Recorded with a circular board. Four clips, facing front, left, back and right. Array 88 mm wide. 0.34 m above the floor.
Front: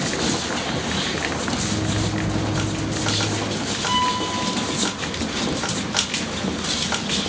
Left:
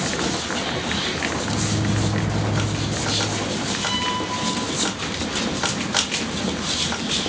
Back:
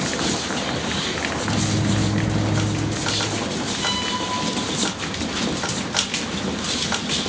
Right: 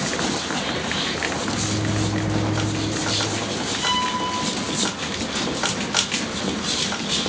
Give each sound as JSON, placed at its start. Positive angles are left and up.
{"t": 1.4, "sound": "a microwave", "azimuth_deg": 170, "distance_m": 4.0}
{"t": 3.8, "sound": "a violin", "azimuth_deg": -150, "distance_m": 5.5}